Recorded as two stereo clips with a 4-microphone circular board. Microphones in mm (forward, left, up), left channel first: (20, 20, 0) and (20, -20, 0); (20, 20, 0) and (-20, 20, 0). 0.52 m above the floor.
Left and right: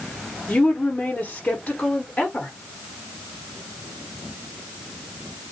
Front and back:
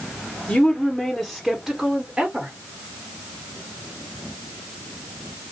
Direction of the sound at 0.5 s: 45° left.